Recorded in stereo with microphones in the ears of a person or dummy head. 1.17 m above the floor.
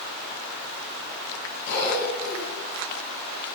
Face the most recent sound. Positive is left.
turn(degrees=65)  # may be behind; listen again after turning